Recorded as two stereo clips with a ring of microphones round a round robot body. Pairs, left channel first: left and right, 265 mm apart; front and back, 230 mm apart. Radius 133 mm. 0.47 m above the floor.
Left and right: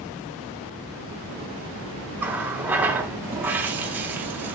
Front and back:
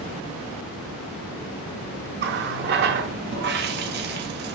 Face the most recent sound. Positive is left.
turn(degrees=-170)